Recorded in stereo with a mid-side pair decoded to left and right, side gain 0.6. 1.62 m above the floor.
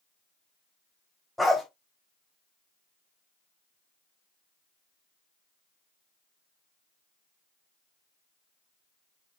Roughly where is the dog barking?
Ahead.